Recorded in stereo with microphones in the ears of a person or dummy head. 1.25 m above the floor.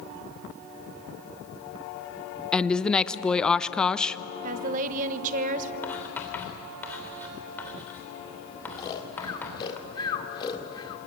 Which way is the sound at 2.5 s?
5° left (ahead or behind).